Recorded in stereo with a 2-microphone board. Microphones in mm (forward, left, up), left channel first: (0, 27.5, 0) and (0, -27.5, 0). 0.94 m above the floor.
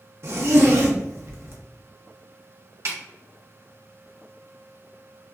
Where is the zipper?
45° right (ahead or behind), 0.6 m.